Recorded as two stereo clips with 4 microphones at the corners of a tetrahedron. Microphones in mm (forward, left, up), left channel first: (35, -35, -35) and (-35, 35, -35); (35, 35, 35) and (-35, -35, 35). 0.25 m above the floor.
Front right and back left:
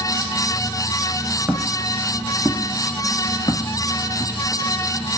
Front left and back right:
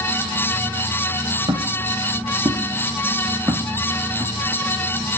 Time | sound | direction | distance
1.5 | footsteps | 155° right | 0.9 m